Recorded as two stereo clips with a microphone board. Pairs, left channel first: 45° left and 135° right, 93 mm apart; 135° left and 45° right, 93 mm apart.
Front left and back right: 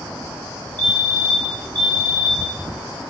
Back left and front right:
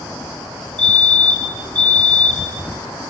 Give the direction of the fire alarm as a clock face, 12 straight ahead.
1 o'clock.